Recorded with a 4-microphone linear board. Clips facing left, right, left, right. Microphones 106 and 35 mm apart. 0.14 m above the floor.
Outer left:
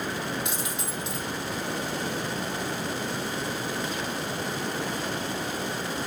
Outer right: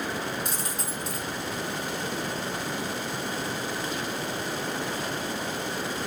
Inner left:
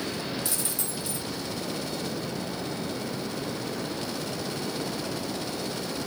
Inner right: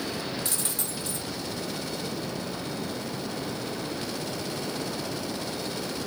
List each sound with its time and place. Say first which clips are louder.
0.5 s a dropped coin: outer left 1 dB, even; 40° right (ahead or behind), 1.8 m